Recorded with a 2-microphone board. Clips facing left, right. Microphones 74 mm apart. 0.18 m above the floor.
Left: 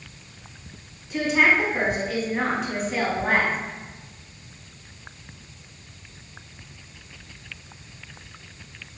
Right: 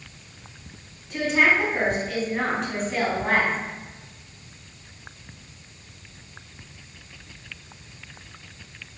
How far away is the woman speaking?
About 1.2 m.